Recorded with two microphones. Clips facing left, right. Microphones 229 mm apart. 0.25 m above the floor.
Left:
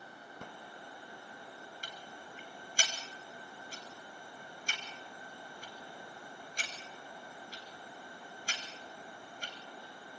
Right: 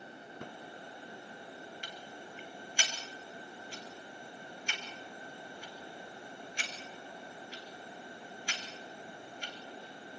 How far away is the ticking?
About 3 m.